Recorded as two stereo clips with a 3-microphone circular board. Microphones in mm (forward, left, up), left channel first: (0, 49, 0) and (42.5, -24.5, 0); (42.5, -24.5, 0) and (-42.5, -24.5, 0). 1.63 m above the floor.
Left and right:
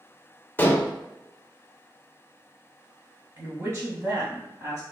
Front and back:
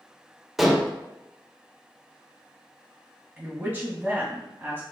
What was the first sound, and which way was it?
Dishes clattering, 95° left.